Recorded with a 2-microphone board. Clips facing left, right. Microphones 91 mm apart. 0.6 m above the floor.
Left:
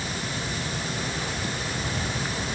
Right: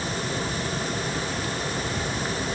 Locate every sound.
Only background noise.